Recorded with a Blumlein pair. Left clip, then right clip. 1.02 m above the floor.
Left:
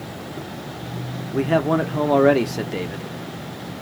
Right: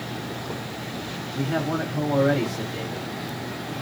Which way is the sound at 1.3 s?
30° left.